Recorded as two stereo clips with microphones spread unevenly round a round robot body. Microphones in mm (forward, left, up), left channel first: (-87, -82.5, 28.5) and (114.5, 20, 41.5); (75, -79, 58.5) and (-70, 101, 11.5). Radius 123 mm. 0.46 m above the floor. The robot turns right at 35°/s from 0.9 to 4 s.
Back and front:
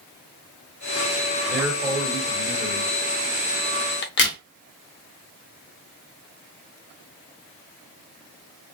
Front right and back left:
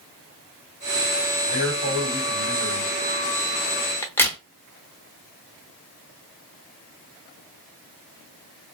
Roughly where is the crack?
Behind right.